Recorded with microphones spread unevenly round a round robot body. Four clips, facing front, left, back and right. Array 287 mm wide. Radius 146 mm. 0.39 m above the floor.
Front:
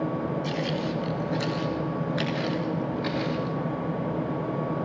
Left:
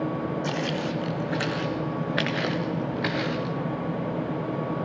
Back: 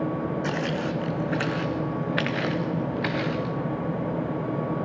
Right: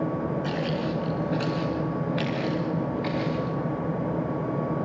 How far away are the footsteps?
About 1.9 m.